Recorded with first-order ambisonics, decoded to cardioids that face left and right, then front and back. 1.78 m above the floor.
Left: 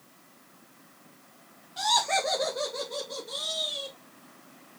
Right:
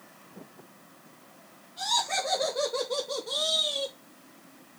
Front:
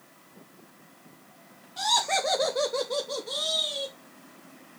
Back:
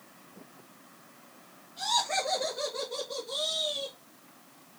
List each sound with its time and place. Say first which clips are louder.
1.8 s laughter: left 3 dB, front 4 dB; 45° left, 1.1 m; by 4.0 s 65° right, 1.7 m